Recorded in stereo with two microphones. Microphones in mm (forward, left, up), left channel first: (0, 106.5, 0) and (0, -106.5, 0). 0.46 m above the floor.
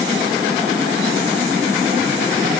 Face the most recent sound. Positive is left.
No sound to turn to.